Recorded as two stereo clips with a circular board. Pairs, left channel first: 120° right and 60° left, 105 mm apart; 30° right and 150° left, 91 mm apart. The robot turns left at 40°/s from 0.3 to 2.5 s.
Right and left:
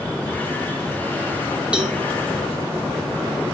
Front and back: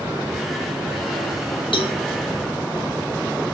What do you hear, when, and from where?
1.7 s a cowbell: 20° right, 2.5 m; by 2.0 s 30° right, 2.5 m